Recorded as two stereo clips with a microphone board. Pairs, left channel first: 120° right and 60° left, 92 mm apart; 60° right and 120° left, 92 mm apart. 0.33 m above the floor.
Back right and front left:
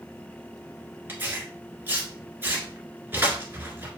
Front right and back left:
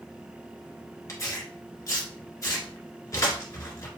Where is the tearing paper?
5° right, 1.7 m.